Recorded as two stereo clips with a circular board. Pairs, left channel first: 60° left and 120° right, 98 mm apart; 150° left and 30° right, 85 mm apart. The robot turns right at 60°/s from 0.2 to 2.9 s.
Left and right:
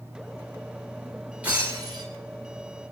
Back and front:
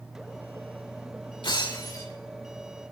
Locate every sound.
1.4 s breaking glass: 165° left, 10 m; by 2.0 s 160° right, 10 m